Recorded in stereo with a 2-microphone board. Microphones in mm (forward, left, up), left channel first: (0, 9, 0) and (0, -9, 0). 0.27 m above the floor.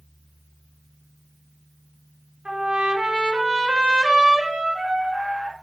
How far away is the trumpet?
About 1.0 m.